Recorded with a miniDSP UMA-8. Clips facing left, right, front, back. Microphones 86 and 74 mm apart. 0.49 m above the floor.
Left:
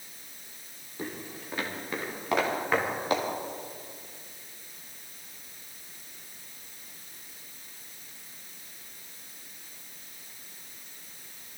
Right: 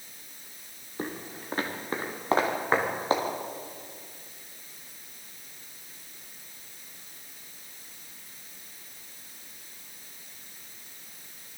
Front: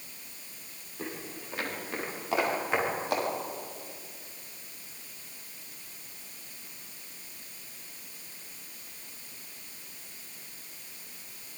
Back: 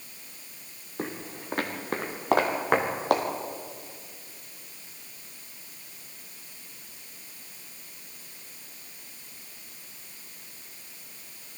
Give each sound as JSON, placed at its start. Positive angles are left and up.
{"t": 1.0, "sound": "footsteps", "azimuth_deg": -135, "distance_m": 4.0}